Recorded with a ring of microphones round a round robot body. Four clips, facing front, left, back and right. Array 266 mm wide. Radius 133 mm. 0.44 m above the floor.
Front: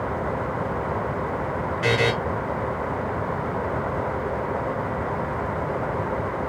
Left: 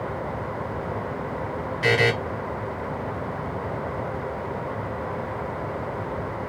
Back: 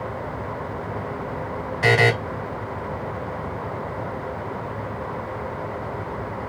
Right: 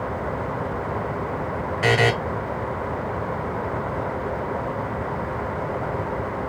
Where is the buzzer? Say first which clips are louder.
Right 1 dB, back 4 dB; 140° right, 1.3 m.